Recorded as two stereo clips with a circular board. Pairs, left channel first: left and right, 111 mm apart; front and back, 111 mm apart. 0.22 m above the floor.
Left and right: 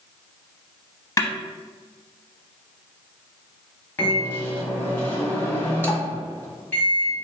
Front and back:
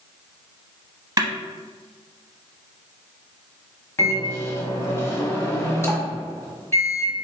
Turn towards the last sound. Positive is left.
turn(degrees=40)